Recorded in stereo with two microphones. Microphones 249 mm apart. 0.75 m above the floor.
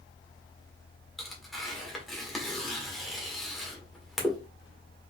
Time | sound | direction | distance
1.2 | tearing paper | centre (ahead or behind) | 1.2 m